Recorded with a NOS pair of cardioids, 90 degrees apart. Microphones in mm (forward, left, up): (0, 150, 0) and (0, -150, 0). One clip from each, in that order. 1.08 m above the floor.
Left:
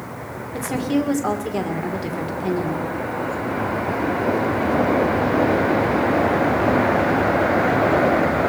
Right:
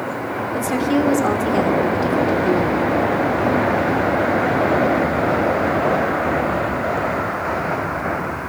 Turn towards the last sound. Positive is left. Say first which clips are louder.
# right 3 dB
turn(degrees=-15)